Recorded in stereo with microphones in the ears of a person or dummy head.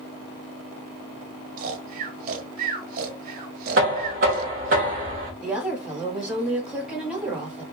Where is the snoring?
55° right (ahead or behind), 0.9 m.